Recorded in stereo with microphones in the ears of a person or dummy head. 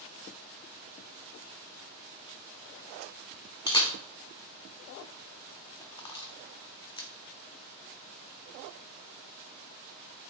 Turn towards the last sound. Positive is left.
turn(degrees=25)  # may be behind; listen again after turning